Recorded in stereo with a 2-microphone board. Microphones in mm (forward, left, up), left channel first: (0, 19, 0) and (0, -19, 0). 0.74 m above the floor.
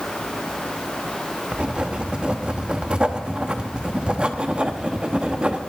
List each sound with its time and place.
1.5 s writing: 30° right (ahead or behind), 0.9 m